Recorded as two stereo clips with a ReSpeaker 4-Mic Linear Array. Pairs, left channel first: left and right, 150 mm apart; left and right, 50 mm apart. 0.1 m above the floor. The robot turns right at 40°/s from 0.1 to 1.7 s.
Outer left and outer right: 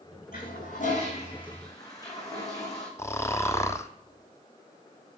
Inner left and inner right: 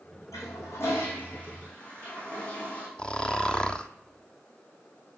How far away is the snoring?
About 0.7 m.